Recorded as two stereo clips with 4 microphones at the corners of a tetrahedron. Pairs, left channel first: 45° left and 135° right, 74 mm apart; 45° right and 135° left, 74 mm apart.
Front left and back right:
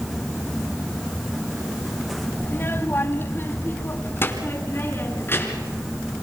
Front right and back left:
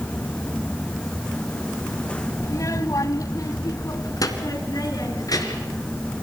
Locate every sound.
2.4 s a child speaking: 10° right, 1.4 m